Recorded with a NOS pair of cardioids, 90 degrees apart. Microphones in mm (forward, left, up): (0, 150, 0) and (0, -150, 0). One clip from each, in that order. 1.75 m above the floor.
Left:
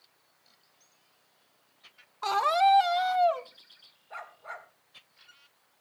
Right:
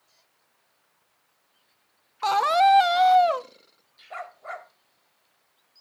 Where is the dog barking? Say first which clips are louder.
Right 5 dB; 40° right, 4 m.